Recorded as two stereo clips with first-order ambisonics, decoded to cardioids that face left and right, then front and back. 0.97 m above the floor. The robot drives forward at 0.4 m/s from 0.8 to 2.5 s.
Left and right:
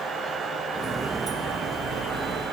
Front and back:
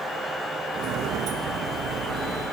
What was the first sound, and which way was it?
Only background noise.